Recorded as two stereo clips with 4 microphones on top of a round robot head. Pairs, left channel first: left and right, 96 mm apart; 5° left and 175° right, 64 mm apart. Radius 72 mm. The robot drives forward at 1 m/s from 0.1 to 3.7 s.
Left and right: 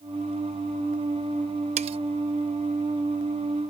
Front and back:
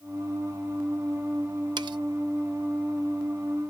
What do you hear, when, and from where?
1.8 s cutlery clinking: 125° right; by 2.0 s 135° right